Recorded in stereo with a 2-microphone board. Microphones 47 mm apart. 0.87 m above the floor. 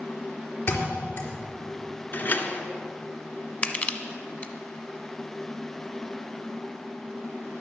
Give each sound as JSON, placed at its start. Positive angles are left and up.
{"t": 0.7, "sound": "a thud", "side_deg": 85, "distance_m": 4.0}
{"t": 2.1, "sound": "a door slam", "side_deg": 45, "distance_m": 1.7}
{"t": 3.6, "sound": "crushing", "side_deg": 30, "distance_m": 1.1}